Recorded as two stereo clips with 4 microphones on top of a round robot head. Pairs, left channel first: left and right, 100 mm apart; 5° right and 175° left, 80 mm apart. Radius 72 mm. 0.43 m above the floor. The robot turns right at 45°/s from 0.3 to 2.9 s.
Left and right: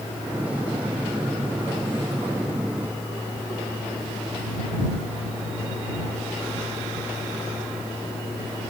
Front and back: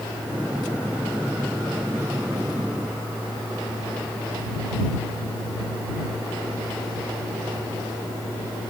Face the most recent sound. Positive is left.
No sound to turn to.